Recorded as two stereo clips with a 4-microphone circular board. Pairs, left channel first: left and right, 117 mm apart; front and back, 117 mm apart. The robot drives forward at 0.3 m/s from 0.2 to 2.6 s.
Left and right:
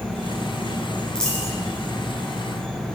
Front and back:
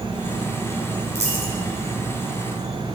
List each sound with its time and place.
0.0 s an insect: 130° left, 1.3 m; by 3.0 s 160° left, 1.6 m
1.1 s a dropped coin: 170° left, 2 m; by 1.5 s 175° left, 2 m